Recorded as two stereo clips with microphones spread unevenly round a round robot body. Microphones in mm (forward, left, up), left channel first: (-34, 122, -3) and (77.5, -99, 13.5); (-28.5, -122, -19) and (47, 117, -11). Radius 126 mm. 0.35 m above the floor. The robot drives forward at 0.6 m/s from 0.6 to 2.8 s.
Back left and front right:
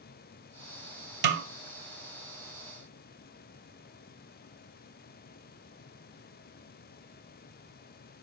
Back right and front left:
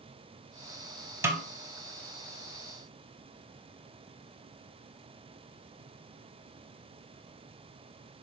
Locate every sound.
1.2 s a snare drum: 10° right, 0.6 m